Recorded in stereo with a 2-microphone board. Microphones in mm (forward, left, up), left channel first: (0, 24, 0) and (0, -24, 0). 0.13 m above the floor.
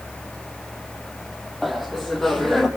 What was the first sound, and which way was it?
Laughter, centre (ahead or behind).